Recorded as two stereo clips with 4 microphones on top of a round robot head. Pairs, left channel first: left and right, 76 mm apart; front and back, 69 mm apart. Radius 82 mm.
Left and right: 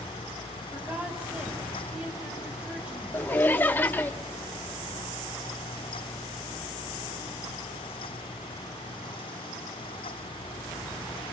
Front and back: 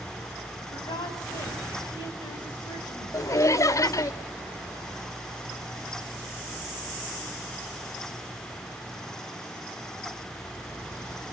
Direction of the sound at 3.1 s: 25° left.